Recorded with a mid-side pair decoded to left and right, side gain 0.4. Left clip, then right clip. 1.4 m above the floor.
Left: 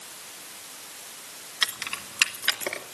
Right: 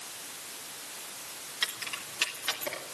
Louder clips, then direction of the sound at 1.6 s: Left 6 dB; 65° left.